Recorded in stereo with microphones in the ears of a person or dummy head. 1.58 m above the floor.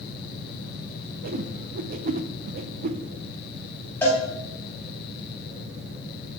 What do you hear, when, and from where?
1.2 s a whoosh: 40° right (ahead or behind), 0.8 m
4.0 s a cowbell: 20° left (ahead or behind), 3 m